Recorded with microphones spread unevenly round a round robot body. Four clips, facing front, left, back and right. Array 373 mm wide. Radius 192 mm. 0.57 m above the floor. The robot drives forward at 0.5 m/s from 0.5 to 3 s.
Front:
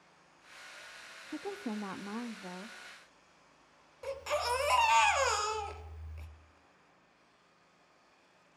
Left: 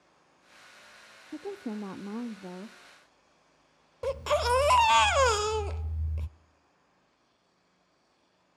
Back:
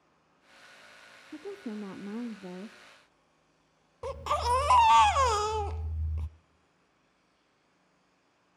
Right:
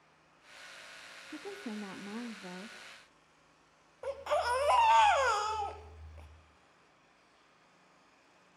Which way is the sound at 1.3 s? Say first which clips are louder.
Left 6 dB, even; 60° left.